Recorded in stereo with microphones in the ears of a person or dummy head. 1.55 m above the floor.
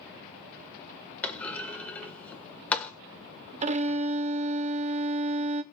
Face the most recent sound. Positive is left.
turn(degrees=-35)  # may be behind; listen again after turning